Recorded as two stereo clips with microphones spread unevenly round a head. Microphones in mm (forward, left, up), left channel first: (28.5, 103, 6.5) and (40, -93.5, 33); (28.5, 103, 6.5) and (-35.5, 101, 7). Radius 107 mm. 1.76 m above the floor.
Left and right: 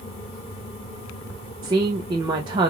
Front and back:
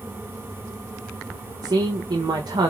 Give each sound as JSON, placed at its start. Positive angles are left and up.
{"t": 1.6, "sound": "a woman speaking", "azimuth_deg": -155, "distance_m": 0.6}